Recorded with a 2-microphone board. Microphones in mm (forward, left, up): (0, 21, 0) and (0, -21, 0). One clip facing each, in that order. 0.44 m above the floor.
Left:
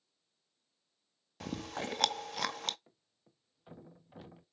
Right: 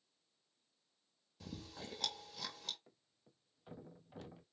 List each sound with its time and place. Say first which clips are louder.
1.4 s chewing: left 11 dB; 65° left (ahead or behind), 0.6 m
2.9 s a thud: left 1 dB; 10° left (ahead or behind), 1.2 m